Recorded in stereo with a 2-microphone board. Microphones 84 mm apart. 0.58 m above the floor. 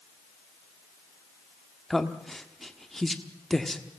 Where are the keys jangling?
I don't hear keys jangling.